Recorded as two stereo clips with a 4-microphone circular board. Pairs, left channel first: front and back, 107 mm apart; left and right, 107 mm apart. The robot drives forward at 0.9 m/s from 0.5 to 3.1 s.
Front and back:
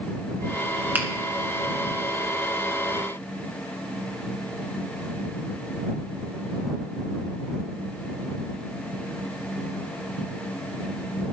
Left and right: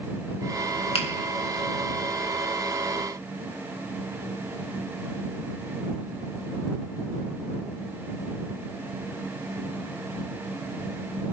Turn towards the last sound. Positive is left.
turn(degrees=145)